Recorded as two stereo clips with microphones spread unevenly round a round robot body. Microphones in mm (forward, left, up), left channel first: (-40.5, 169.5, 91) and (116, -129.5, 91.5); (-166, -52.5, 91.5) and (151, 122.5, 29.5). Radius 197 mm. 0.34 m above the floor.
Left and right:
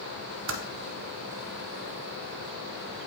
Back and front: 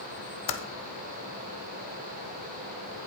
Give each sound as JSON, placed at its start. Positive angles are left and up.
{"t": 0.5, "sound": "typing on a keyboard", "azimuth_deg": -120, "distance_m": 0.8}